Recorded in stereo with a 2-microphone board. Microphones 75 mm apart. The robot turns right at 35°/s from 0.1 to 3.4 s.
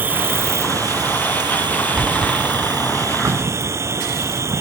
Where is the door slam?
5° left (ahead or behind); by 4.6 s 20° left (ahead or behind).